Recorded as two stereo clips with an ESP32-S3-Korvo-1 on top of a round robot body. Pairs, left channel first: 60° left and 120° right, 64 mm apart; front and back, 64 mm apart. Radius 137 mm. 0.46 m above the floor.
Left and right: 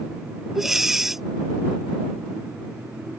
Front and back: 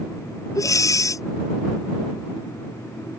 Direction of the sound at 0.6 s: 35° right.